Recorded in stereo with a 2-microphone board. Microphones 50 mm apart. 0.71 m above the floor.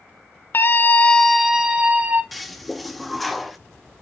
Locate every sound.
0.5 s a scream: 45° left (ahead or behind), 0.7 m; by 2.2 s 35° right (ahead or behind), 0.9 m
2.3 s a toilet flushing: centre (ahead or behind), 0.7 m